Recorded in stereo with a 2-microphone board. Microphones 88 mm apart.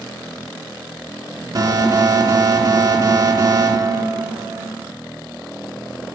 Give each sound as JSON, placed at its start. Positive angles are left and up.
{"t": 1.6, "sound": "an alarm", "side_deg": -50, "distance_m": 3.0}